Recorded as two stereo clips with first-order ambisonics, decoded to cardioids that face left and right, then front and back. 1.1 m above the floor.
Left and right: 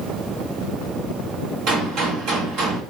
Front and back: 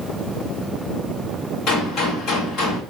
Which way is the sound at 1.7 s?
50° right.